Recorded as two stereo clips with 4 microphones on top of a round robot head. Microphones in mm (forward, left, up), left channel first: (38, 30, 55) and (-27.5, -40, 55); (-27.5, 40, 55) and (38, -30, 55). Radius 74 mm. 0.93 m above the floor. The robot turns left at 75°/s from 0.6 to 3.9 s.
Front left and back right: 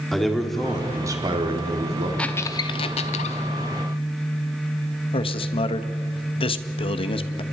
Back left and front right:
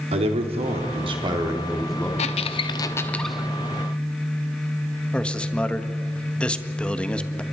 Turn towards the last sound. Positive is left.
turn(degrees=55)